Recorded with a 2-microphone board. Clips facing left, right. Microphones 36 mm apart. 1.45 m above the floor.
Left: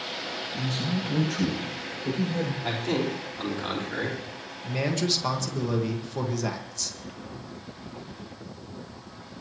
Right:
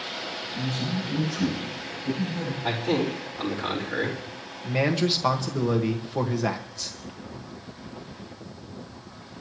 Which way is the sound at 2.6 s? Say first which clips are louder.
Right 5 dB; 5° right (ahead or behind).